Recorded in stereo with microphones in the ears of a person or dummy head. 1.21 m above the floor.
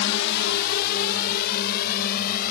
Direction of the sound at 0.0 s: 60° left (ahead or behind).